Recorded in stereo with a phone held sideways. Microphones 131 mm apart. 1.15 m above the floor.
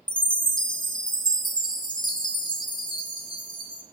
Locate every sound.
0.1 s a chime: 35° left (ahead or behind), 1.6 m